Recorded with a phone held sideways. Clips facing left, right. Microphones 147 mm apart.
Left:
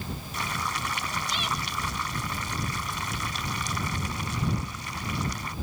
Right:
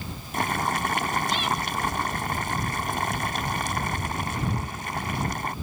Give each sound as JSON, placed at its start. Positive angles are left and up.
{"t": 0.3, "sound": "boiling", "side_deg": -60}